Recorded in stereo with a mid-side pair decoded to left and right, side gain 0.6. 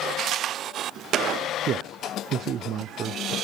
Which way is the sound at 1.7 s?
50° right.